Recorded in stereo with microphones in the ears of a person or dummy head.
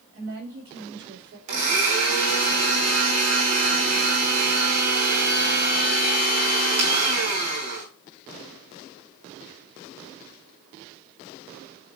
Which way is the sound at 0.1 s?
70° right (ahead or behind).